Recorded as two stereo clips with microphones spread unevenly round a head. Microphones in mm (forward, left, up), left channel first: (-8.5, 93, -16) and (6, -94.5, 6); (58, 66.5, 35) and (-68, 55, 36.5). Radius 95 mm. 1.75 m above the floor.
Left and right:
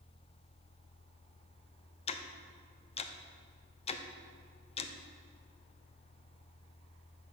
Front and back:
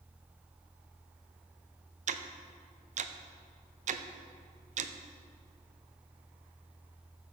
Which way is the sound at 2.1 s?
155° left.